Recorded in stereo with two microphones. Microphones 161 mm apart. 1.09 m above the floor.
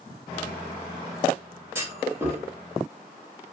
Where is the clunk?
15° right (ahead or behind), 0.9 m.